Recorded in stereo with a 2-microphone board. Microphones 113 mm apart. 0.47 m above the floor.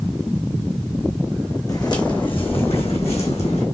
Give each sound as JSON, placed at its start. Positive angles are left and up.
{"t": 1.7, "sound": "footsteps", "side_deg": 35, "distance_m": 1.1}